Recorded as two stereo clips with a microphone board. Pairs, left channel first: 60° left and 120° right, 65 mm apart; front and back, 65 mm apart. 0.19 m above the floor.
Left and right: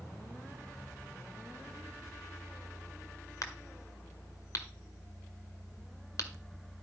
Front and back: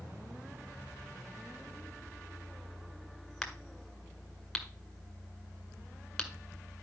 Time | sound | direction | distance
3.4 | a crack | 85° left | 1.7 m